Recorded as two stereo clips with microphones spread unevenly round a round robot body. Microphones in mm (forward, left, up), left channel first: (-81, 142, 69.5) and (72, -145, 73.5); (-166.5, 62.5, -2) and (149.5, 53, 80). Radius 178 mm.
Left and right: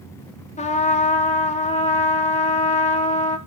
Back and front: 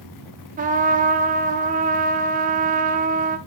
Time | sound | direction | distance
0.6 | a trumpet | 70° left | 0.9 m